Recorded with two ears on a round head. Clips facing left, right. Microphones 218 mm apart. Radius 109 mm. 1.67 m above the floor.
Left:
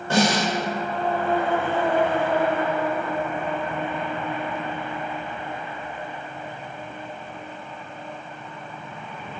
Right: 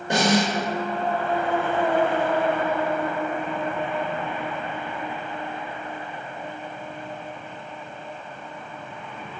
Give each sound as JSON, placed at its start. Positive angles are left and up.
{"t": 0.1, "sound": "a snare drum", "side_deg": -15, "distance_m": 0.7}